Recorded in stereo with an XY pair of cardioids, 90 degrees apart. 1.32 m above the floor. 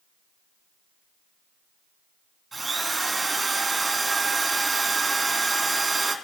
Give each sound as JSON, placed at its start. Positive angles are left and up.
{"t": 2.5, "sound": "a drill", "azimuth_deg": -25, "distance_m": 2.0}